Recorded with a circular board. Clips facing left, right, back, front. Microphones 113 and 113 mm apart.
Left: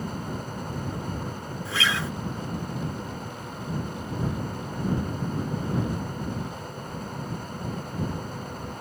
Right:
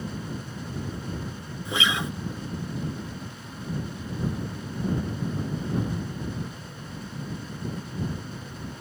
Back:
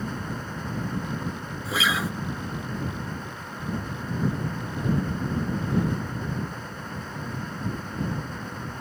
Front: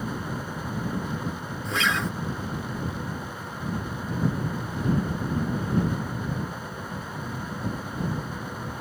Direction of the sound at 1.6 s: 105° right.